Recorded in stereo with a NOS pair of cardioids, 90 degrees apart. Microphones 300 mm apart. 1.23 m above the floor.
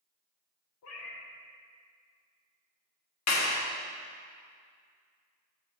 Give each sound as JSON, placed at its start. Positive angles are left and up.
{"t": 0.8, "sound": "a cat meowing", "azimuth_deg": 65, "distance_m": 1.7}
{"t": 3.3, "sound": "a clap", "azimuth_deg": 60, "distance_m": 1.6}